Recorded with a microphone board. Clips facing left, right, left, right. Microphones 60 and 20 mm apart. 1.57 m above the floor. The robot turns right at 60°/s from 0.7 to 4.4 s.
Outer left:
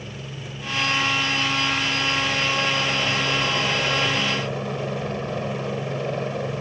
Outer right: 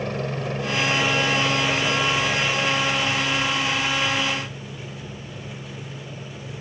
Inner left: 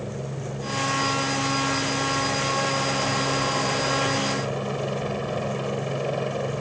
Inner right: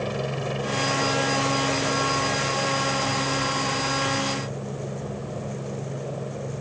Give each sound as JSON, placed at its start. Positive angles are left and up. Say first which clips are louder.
{"t": 0.0, "sound": "a helicopter", "louder": "outer right 9 dB, inner right 5 dB", "azimuth_deg": -115}